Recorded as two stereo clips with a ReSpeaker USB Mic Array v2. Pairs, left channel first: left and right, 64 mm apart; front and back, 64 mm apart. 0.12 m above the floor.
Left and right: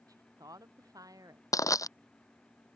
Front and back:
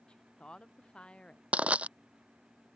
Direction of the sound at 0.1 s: 75° right.